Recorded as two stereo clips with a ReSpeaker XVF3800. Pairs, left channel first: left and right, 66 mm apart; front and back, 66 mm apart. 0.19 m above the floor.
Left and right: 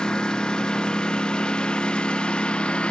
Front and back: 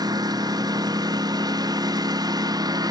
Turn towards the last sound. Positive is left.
turn(degrees=165)